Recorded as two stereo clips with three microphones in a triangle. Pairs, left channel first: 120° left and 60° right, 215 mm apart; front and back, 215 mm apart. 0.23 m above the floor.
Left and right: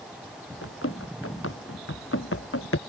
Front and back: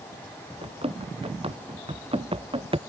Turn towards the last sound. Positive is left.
turn(degrees=115)